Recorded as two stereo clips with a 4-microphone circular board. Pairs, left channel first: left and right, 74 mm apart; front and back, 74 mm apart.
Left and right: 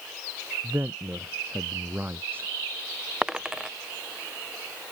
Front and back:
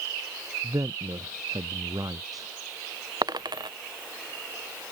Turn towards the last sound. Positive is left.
turn(degrees=-170)